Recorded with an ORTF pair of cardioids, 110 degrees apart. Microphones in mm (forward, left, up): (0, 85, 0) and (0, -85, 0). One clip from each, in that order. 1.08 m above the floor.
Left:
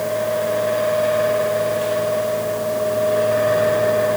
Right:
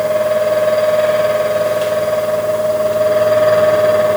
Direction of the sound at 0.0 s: 35° right.